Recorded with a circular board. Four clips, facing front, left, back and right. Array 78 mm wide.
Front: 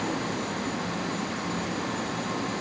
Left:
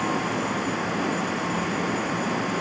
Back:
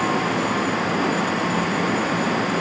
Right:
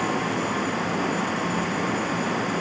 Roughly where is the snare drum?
I don't hear a snare drum.